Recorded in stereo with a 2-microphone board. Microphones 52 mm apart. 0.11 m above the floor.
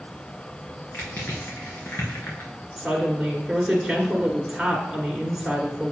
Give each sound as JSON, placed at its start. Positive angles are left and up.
{"t": 0.9, "sound": "crushing", "side_deg": 50, "distance_m": 3.5}
{"t": 2.8, "sound": "a woman speaking", "side_deg": -5, "distance_m": 1.5}